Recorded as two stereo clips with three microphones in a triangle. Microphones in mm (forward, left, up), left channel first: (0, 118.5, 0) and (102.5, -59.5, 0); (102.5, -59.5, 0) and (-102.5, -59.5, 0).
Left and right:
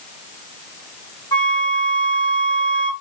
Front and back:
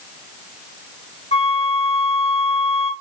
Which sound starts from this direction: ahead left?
A flute, at 1.3 s.